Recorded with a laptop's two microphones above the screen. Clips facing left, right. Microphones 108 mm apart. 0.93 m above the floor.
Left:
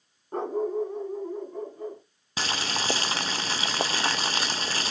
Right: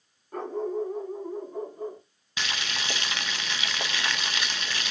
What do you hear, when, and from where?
0.3 s a dog barking: 30° left (ahead or behind), 0.7 m; by 2.0 s 20° right (ahead or behind), 2 m
2.4 s boiling: 40° left (ahead or behind), 0.6 m